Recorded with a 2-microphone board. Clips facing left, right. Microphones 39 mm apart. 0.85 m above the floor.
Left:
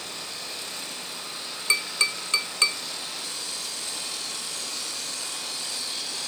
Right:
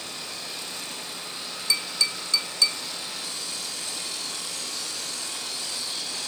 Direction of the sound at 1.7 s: 45° left (ahead or behind).